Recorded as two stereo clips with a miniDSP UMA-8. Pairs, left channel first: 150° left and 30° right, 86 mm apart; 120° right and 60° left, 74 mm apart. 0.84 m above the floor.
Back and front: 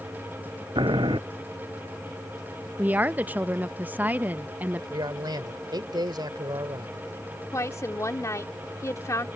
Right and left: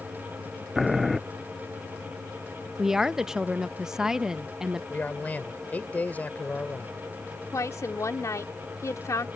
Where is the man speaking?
55° right.